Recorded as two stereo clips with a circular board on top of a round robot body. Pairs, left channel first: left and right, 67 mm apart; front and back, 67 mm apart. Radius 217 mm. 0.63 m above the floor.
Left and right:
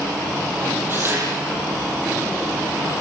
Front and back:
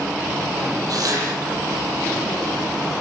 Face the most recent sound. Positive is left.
turn(degrees=-150)